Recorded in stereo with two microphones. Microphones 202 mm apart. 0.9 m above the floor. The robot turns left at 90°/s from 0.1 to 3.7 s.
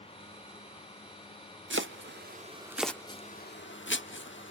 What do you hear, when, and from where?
1.7 s chopping: 75° right (ahead or behind), 1.0 m; by 4.5 s 75° left (ahead or behind), 1.0 m